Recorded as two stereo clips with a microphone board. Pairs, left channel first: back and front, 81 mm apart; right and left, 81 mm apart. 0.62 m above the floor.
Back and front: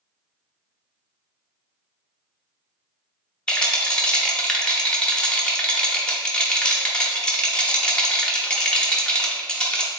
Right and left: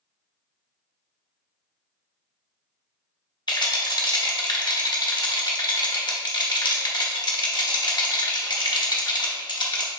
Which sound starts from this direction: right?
A rattle, at 3.5 s.